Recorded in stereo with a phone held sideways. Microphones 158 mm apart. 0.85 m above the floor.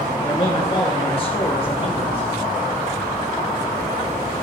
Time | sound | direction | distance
0.2 | a man speaking | 35° left (ahead or behind) | 1.3 m